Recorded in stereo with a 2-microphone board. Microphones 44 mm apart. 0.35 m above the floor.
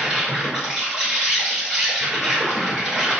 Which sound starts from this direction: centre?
An insect, at 0.0 s.